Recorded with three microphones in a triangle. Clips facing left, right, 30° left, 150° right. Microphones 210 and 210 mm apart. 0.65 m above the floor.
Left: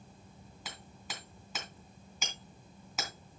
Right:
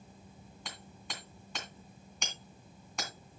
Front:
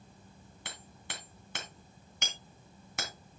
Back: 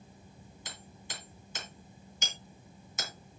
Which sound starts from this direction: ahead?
Hammering, at 0.7 s.